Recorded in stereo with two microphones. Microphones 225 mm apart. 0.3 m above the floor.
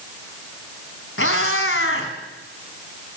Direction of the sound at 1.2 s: 65° left (ahead or behind).